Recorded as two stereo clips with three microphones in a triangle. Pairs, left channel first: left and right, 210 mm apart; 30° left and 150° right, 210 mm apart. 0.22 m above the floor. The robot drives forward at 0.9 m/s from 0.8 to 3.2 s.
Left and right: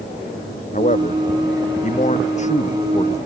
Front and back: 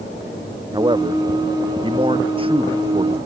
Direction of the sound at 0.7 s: 140° left.